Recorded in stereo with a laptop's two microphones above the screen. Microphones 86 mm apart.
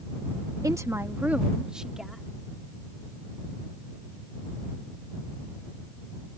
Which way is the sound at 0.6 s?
45° right (ahead or behind).